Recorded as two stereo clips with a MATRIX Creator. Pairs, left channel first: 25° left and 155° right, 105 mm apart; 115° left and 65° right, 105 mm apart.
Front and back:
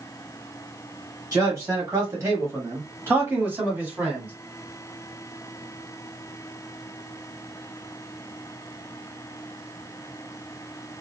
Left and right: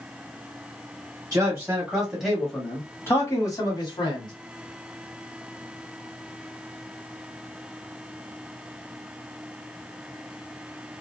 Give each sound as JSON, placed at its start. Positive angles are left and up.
{"t": 1.3, "sound": "a man speaking", "azimuth_deg": -110, "distance_m": 1.1}